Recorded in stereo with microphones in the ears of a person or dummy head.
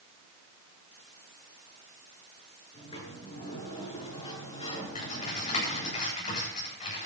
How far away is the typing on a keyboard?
About 8.5 m.